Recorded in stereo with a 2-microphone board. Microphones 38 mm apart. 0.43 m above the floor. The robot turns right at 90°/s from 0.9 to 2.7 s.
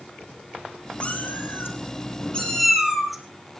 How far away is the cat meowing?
About 4 m.